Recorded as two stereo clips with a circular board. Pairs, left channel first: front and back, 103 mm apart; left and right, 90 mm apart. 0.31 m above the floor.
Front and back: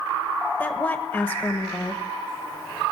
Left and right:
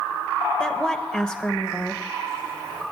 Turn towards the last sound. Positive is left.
turn(degrees=30)